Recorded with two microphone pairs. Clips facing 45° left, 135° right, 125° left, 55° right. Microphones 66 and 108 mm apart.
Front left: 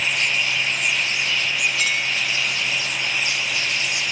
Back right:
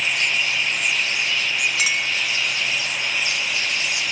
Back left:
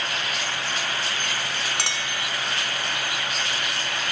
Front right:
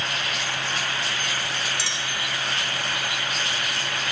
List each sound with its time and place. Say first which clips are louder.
1.8 s a clink: even, back left 1 dB; 145° left, 1.4 m